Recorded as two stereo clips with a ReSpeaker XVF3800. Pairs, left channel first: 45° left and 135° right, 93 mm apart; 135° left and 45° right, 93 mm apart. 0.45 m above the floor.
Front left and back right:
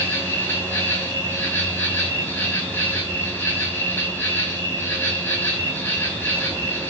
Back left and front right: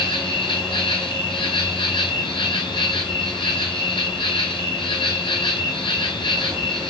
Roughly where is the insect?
Left.